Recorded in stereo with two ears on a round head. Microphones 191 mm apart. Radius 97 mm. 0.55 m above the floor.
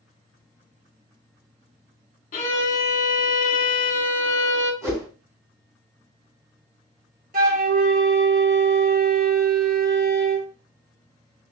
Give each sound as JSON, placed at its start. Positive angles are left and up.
{"t": 2.3, "sound": "a violin", "side_deg": 40, "distance_m": 1.0}
{"t": 4.8, "sound": "a whoosh", "side_deg": -15, "distance_m": 1.9}
{"t": 7.3, "sound": "a flute", "side_deg": -45, "distance_m": 1.9}